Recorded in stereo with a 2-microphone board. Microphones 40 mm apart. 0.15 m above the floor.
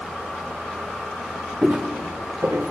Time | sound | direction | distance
1.6 | footsteps | 30° right (ahead or behind) | 0.7 m